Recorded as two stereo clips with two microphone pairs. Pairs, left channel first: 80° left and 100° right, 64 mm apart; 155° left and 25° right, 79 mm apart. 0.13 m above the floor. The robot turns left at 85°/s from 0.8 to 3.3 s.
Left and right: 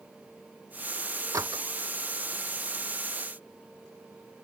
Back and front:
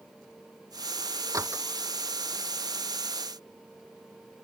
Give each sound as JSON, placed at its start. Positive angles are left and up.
{"t": 1.3, "sound": "a door slam", "azimuth_deg": -70}